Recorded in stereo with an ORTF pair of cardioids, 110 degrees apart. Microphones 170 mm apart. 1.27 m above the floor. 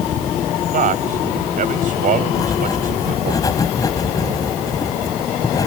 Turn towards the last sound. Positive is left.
turn(degrees=20)